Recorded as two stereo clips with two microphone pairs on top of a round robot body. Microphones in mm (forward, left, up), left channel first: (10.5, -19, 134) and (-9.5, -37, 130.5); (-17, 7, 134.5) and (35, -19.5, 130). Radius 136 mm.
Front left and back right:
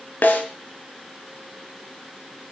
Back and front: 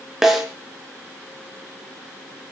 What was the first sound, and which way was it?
A snare drum, 55° left.